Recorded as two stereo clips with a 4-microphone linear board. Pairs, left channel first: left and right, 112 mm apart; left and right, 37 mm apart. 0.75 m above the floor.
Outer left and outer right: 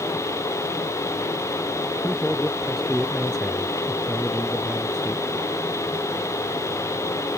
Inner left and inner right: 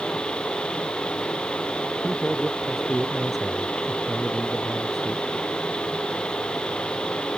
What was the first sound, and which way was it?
A man speaking, 5° left (ahead or behind).